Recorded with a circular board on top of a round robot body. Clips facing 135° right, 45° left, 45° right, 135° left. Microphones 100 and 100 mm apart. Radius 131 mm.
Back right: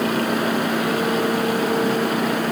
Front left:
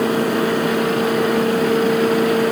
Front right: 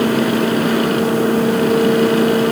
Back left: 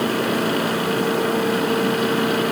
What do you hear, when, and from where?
Only background noise.